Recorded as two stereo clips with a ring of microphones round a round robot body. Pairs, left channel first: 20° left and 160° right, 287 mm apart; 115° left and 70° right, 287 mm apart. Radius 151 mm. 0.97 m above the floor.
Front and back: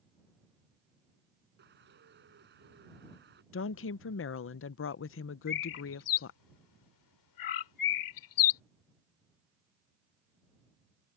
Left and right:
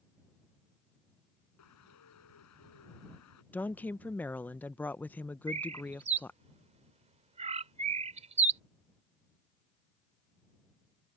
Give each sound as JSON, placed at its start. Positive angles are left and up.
{"t": 1.6, "sound": "a bird", "azimuth_deg": 145}
{"t": 3.5, "sound": "a woman speaking", "azimuth_deg": 30}
{"t": 5.5, "sound": "a bird", "azimuth_deg": 0}